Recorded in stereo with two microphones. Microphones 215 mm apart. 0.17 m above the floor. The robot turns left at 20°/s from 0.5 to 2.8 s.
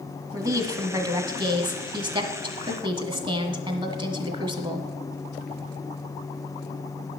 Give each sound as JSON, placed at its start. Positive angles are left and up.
{"t": 0.3, "sound": "a woman speaking", "side_deg": -15, "distance_m": 1.1}